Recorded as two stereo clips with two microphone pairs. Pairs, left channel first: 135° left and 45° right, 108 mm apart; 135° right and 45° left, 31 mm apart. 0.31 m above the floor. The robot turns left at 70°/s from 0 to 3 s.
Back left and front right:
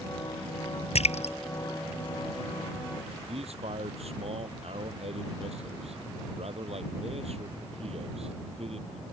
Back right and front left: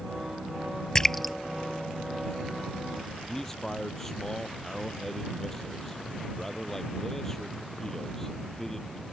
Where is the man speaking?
65° right.